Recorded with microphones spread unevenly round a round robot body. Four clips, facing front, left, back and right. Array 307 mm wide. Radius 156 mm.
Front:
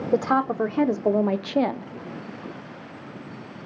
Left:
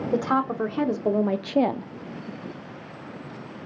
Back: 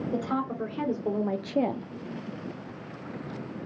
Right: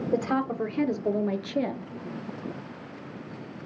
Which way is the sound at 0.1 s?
Straight ahead.